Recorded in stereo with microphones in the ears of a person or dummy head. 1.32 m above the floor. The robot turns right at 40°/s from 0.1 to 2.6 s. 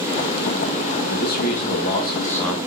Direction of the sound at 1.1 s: 120° left.